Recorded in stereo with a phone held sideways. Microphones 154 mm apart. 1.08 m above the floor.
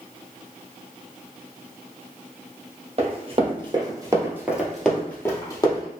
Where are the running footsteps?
45° right (ahead or behind), 1.5 m; by 5.9 s 25° left (ahead or behind), 1.5 m.